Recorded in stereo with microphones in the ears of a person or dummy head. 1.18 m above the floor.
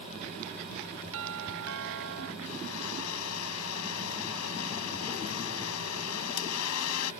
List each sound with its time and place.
1.1 s a doorbell: 70° right (ahead or behind)
2.4 s a blender: 80° left